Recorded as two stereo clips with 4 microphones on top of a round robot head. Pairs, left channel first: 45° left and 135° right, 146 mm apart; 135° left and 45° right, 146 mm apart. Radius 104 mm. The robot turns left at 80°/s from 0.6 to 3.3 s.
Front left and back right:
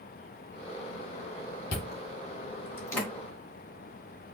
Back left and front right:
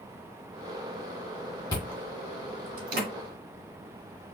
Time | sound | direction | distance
1.7 | chewing | 70° left | 2 m